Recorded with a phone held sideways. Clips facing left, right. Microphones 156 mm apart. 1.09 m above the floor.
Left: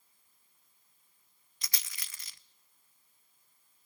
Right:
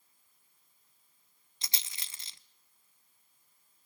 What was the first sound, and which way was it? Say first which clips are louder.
A rattle: even; 25° right (ahead or behind).